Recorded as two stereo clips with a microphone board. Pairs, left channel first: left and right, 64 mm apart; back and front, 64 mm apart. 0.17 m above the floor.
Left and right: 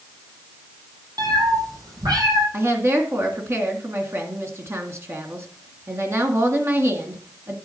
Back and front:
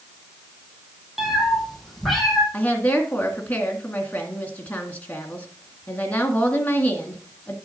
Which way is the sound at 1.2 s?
85° right.